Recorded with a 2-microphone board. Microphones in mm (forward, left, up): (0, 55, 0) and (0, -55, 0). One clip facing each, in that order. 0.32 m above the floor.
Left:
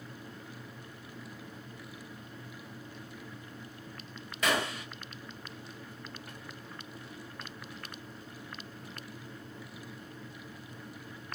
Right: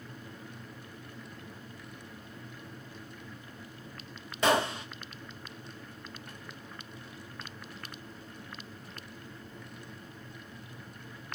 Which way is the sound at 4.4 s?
30° right (ahead or behind).